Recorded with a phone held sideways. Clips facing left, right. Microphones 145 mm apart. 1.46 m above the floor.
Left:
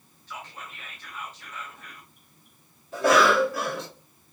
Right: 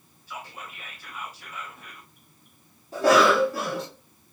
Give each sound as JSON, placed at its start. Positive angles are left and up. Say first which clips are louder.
{"t": 0.3, "sound": "whispering", "louder": "right 1 dB", "side_deg": -10, "distance_m": 0.7}
{"t": 2.9, "sound": "a cough", "louder": "right 1 dB", "side_deg": -35, "distance_m": 1.1}